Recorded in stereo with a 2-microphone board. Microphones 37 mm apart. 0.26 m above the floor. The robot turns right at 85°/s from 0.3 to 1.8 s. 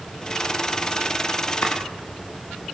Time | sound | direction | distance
1.6 | chopping | 70° left (ahead or behind) | 8 m